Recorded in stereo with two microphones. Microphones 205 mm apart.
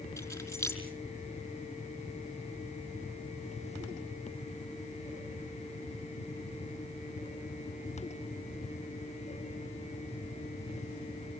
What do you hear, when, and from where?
0.2 s keys jangling: 15° left (ahead or behind), 5.5 m